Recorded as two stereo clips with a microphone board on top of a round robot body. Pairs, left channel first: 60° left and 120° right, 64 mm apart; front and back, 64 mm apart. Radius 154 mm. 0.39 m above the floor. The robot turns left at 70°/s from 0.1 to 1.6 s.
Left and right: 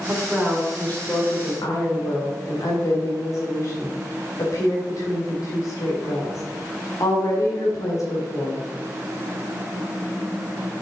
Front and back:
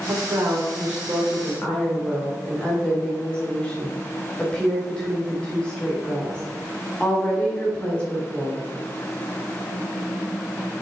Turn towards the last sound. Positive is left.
turn(degrees=70)